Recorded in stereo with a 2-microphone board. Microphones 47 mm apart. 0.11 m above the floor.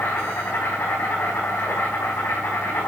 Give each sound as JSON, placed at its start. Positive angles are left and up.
{"t": 0.0, "sound": "an insect", "side_deg": 75, "distance_m": 5.0}